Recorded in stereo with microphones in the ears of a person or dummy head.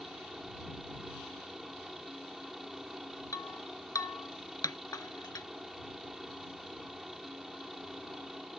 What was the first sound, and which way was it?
A helicopter, centre (ahead or behind).